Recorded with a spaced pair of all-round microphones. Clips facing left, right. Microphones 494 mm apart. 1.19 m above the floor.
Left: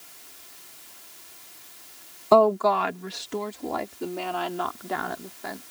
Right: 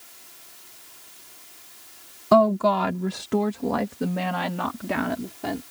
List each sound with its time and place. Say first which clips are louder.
2.3 s a woman speaking: even; 35° right (ahead or behind); by 5.6 s 85° right